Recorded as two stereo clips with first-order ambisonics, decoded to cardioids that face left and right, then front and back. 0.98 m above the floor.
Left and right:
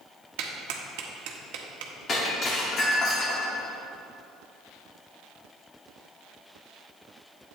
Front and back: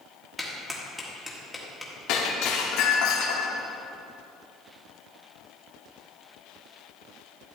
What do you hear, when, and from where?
0.4 s a clap: 85° right, 1.2 m
2.1 s breaking glass: 30° left, 1.3 m